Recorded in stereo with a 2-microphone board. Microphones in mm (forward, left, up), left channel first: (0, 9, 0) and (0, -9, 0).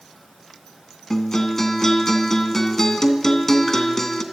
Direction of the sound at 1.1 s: 20° left (ahead or behind).